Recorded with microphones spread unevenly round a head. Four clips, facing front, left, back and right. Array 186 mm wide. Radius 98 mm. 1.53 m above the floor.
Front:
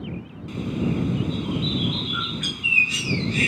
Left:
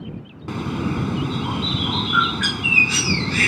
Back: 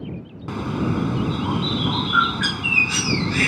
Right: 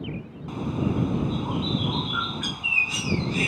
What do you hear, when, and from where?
0.5 s a bird: 115° left